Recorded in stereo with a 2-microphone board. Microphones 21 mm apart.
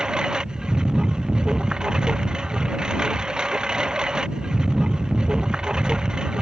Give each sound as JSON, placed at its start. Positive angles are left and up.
{"t": 0.0, "sound": "a lawn mower", "side_deg": -45}